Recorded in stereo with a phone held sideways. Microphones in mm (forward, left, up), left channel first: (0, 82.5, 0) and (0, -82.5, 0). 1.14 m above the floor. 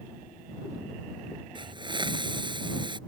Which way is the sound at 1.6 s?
30° right (ahead or behind).